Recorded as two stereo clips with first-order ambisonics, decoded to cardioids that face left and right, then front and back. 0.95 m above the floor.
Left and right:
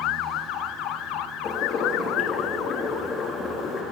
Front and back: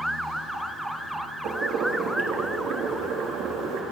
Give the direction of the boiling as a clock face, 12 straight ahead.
7 o'clock.